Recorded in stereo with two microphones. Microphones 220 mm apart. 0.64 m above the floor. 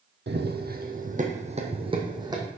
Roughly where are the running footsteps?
Right.